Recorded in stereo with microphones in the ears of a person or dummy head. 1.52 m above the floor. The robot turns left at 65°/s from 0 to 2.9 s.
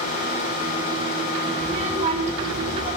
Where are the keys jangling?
No keys jangling in this recording.